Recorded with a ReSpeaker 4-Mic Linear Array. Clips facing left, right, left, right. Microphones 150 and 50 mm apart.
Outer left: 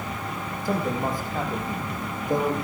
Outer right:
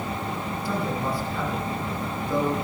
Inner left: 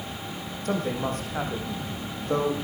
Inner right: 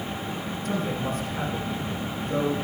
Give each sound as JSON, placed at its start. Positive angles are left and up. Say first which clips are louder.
{"t": 0.7, "sound": "a man speaking", "louder": "outer left 3 dB, inner left 2 dB", "side_deg": 45, "distance_m": 5.5}